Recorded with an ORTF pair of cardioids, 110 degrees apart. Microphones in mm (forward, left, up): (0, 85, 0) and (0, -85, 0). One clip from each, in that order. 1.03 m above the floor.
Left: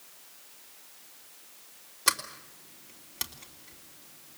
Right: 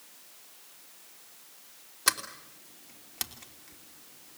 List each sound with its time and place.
2.1 s a sliding door: 15° right, 3 m